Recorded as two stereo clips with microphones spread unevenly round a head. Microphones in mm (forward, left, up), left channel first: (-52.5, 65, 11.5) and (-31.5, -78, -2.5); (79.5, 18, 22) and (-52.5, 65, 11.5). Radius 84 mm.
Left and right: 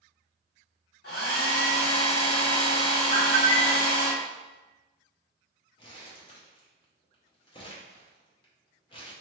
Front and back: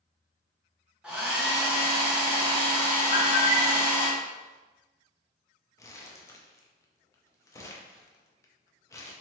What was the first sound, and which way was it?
A hair dryer, 75° left.